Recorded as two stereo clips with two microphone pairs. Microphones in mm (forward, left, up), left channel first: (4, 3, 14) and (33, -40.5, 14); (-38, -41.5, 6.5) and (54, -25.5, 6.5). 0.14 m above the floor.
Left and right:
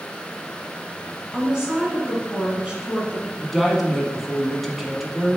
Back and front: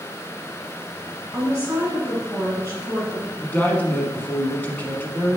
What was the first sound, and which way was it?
A woman speaking, 5° left.